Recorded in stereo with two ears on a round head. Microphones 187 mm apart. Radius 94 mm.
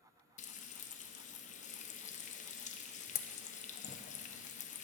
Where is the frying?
35° left (ahead or behind), 0.9 m.